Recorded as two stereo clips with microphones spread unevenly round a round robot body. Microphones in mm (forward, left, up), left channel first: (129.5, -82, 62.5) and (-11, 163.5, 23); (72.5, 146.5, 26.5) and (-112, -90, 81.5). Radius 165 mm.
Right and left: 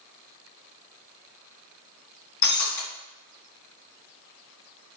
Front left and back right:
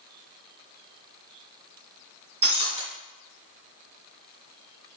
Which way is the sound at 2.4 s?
55° right.